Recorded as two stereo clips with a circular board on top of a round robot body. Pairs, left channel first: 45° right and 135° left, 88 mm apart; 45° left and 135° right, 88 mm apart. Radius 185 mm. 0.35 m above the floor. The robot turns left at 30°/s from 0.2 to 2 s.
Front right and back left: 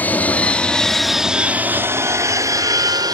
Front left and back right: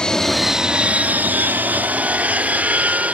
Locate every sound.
0.0 s an aircraft: 20° right; by 3.1 s 155° left